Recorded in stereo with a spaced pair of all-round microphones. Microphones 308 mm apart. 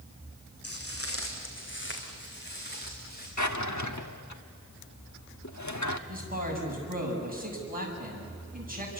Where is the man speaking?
30° right (ahead or behind), 6.5 m.